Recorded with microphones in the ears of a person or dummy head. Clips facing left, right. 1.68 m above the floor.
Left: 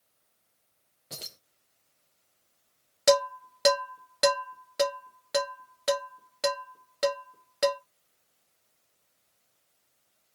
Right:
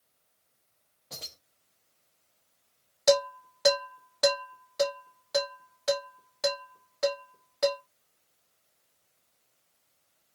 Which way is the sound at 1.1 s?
20° left (ahead or behind).